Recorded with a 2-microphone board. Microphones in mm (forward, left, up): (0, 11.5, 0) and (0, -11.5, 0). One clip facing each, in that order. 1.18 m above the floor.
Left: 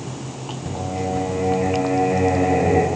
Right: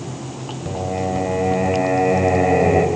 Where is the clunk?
No clunk in this recording.